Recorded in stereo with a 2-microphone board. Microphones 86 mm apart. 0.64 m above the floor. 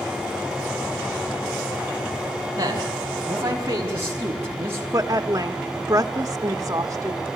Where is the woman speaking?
40° right (ahead or behind), 1.2 m.